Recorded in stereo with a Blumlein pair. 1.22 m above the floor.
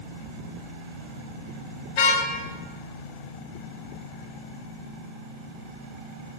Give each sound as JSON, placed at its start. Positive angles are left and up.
{"t": 2.0, "sound": "a car horn", "azimuth_deg": 40, "distance_m": 3.5}